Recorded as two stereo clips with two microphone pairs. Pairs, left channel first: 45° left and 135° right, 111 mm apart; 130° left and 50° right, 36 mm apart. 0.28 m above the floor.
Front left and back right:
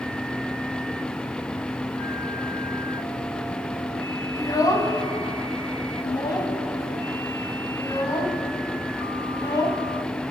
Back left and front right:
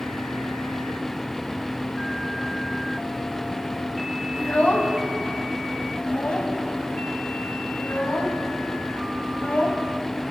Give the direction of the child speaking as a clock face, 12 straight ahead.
9 o'clock.